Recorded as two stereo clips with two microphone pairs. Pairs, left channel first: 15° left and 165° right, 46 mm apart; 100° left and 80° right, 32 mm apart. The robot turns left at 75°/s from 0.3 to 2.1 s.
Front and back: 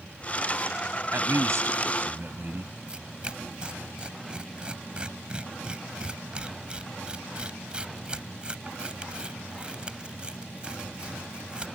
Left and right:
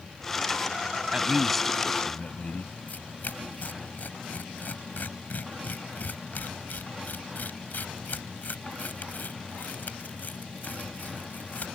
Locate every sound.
1.1 s a man speaking: 140° right; by 2.8 s 150° left
2.9 s tearing paper: 125° left